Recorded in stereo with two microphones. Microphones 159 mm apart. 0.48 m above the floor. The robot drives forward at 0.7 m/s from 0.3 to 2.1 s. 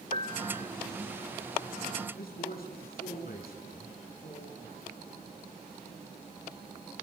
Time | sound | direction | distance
0.1 | a piano | 55° right (ahead or behind) | 0.7 m
2.1 | a man speaking | 75° left (ahead or behind) | 6.5 m